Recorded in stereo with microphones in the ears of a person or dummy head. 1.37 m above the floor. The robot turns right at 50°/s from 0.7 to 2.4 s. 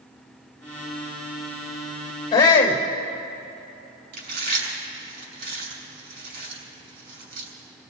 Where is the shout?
25° left (ahead or behind), 2 m; by 2.8 s 20° left (ahead or behind), 2 m.